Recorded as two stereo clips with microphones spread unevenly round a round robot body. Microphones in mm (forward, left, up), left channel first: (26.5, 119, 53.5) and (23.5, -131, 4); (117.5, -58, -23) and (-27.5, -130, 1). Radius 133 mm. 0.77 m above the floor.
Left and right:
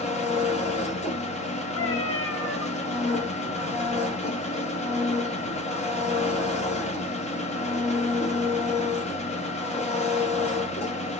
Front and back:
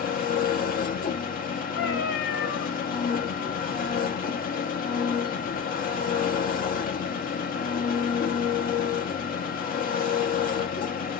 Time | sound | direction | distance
0.0 | an engine running | 20° left | 1.0 m
1.8 | a cat meowing | 50° left | 1.3 m